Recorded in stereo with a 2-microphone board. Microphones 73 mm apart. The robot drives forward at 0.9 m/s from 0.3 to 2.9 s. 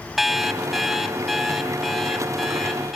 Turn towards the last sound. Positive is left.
turn(degrees=0)  # may be behind; listen again after turning